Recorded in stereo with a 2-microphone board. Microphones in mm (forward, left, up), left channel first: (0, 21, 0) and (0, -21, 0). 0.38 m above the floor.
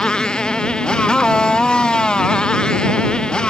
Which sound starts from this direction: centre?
A motorcycle, at 0.0 s.